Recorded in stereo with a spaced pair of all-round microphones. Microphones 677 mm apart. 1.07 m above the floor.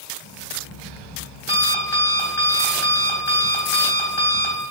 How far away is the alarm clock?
About 3.5 m.